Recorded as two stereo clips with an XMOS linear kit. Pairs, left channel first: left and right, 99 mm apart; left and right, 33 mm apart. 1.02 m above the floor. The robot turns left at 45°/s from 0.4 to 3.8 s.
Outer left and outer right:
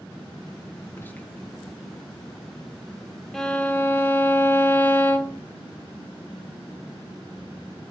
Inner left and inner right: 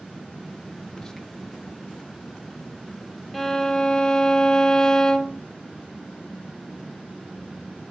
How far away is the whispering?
About 1.1 m.